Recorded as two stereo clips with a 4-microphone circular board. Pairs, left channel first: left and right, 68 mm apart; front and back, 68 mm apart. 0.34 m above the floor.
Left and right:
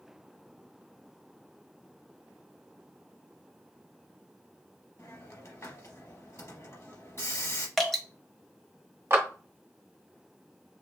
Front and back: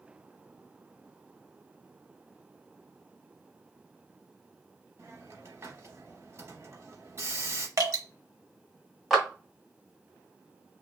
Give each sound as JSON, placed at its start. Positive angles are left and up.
{"t": 5.0, "sound": "a hiss", "azimuth_deg": 135, "distance_m": 0.8}
{"t": 7.8, "sound": "dripping", "azimuth_deg": 175, "distance_m": 0.9}
{"t": 9.1, "sound": "a clap", "azimuth_deg": -95, "distance_m": 1.1}